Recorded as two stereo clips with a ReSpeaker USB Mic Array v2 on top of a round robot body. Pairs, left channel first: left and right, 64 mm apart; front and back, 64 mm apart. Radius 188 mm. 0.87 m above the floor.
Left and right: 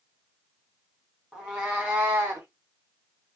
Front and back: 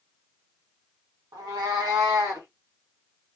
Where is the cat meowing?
175° right, 1.2 m; by 2.5 s 140° right, 1.1 m.